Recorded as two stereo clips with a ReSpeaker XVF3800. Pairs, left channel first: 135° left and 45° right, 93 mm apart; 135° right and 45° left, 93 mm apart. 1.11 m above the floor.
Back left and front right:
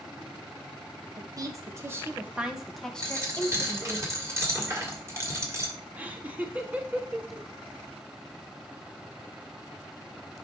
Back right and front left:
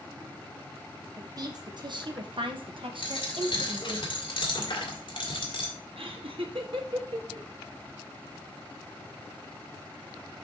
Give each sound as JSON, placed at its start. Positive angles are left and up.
{"t": 1.2, "sound": "a woman speaking", "azimuth_deg": -5, "distance_m": 1.5}
{"t": 3.0, "sound": "a dropped coin", "azimuth_deg": -105, "distance_m": 2.0}
{"t": 6.0, "sound": "laughter", "azimuth_deg": 30, "distance_m": 1.4}